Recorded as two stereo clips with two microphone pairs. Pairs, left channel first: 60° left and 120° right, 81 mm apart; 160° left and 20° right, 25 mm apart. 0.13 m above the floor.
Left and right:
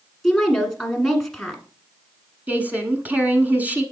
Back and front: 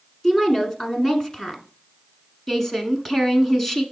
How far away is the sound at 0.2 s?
About 1.4 m.